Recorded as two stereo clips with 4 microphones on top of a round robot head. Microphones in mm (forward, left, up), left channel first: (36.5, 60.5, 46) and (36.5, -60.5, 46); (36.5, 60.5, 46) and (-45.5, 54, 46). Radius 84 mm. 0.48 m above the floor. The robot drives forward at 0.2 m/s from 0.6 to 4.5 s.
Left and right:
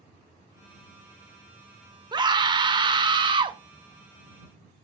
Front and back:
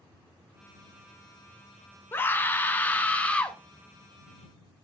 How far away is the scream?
About 1.3 m.